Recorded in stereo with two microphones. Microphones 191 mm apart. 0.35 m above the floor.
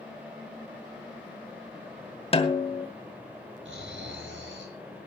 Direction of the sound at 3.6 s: 80° right.